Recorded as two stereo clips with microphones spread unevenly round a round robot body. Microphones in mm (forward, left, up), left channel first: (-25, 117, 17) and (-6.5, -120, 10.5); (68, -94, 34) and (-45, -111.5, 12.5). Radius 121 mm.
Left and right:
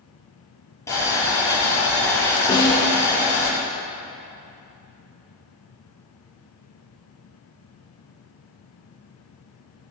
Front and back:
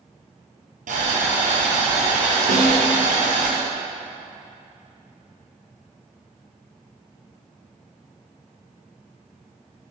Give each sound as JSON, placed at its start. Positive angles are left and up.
{"t": 0.9, "sound": "boiling", "azimuth_deg": 175, "distance_m": 4.5}
{"t": 2.5, "sound": "a snare drum", "azimuth_deg": 165, "distance_m": 3.0}